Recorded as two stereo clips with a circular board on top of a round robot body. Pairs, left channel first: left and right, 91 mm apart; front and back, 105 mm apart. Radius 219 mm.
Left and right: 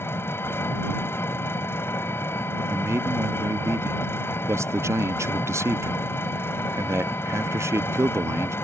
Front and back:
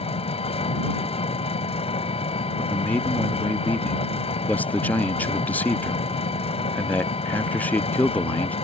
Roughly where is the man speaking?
Ahead right.